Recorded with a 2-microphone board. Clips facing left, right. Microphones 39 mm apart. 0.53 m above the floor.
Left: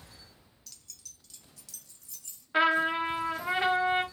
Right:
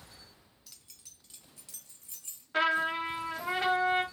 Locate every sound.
0.7 s keys jangling: 15° right (ahead or behind), 0.6 m; by 2.4 s 35° right (ahead or behind), 1.8 m
2.5 s a trumpet: 15° left (ahead or behind), 0.7 m